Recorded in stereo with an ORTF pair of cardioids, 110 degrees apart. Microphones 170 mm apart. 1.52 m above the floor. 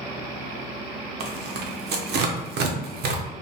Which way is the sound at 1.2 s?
70° right.